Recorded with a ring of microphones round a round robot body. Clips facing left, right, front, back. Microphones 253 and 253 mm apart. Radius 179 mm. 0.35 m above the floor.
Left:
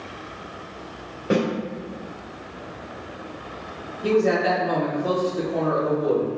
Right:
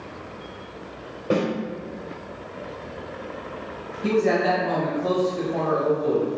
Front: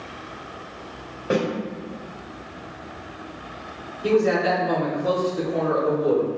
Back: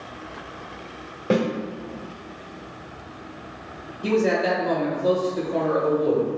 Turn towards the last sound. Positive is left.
turn(degrees=180)